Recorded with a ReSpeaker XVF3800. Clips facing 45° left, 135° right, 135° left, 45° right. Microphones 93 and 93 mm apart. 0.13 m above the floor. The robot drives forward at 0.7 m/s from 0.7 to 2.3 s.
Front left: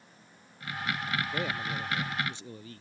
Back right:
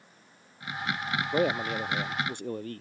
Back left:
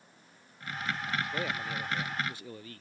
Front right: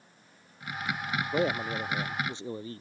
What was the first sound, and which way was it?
A man speaking, 95° right.